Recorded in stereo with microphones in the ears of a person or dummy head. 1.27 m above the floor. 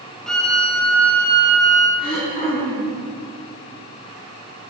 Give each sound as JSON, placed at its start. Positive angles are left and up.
{"t": 0.3, "sound": "a violin", "side_deg": 5, "distance_m": 1.0}
{"t": 2.0, "sound": "throat clearing", "side_deg": 30, "distance_m": 2.5}